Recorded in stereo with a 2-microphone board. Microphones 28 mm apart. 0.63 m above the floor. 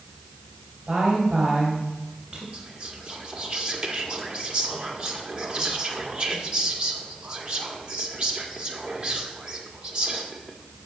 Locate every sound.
0.9 s a woman speaking: 40° right (ahead or behind), 3 m
2.5 s whispering: 35° right (ahead or behind), 1.5 m